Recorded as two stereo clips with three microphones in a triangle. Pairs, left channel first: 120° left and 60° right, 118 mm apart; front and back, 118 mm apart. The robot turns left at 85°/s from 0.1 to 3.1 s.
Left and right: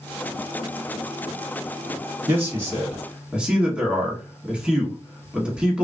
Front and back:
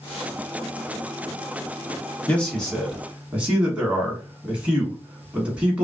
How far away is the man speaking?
About 1.1 m.